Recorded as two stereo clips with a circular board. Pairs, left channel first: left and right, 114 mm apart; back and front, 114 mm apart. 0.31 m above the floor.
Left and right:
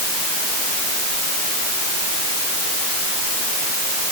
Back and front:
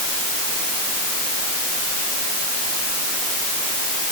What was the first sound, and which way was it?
Only background noise.